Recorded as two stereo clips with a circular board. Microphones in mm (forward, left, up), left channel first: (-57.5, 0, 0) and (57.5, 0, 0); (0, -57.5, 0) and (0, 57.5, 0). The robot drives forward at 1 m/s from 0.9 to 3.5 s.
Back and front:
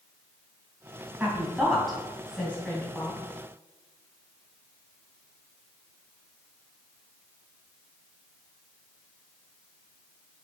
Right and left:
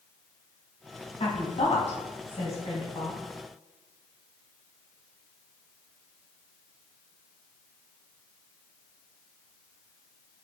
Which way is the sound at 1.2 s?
75° right.